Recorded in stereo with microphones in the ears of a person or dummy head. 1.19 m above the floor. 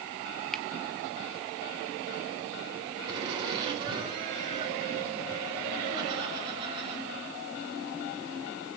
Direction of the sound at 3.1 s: 30° right (ahead or behind).